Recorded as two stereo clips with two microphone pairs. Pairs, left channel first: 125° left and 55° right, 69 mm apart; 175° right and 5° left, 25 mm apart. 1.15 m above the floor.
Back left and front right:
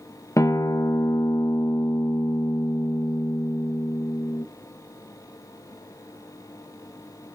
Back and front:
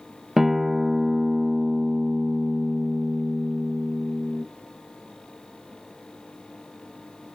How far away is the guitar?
About 0.9 m.